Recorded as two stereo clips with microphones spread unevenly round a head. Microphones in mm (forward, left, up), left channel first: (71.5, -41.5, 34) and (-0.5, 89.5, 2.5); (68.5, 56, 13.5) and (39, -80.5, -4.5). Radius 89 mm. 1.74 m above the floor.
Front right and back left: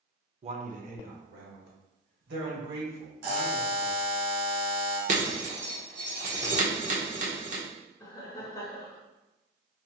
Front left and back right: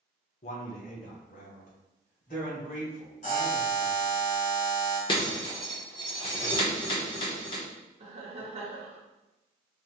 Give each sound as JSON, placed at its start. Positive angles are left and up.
{"t": 0.4, "sound": "a man speaking", "azimuth_deg": 70, "distance_m": 0.8}
{"t": 3.2, "sound": "a buzzer", "azimuth_deg": 130, "distance_m": 1.3}
{"t": 5.1, "sound": "breaking glass", "azimuth_deg": 100, "distance_m": 1.0}
{"t": 8.0, "sound": "laughter", "azimuth_deg": -95, "distance_m": 0.7}